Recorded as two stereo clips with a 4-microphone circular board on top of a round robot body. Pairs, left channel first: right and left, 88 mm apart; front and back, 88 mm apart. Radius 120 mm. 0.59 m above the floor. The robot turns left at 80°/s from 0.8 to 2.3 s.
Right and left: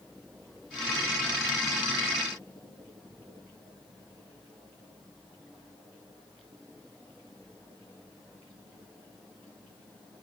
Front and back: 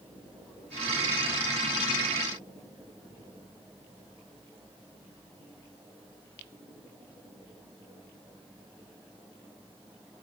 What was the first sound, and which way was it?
Only background noise.